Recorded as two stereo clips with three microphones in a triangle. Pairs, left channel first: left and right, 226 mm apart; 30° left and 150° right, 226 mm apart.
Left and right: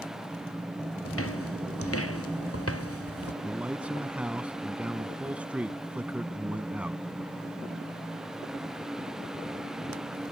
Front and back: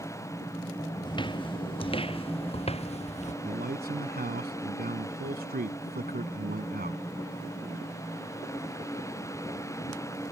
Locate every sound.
1.1 s footsteps: 100° left; by 3.3 s 90° left
3.4 s a man speaking: 170° right